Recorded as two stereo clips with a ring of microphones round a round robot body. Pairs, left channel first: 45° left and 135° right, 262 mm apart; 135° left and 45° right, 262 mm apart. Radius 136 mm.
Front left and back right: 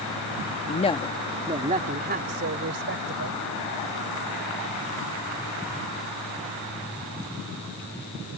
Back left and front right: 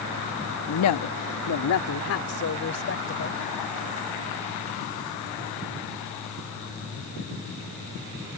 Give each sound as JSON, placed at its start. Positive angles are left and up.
{"t": 0.7, "sound": "a woman speaking", "azimuth_deg": 100}